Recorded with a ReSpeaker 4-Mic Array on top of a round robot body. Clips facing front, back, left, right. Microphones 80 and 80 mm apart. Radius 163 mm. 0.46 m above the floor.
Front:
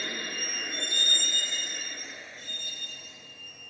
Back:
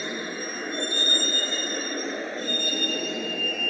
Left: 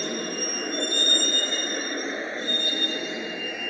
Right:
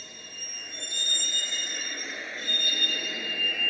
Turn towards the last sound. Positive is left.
turn(degrees=165)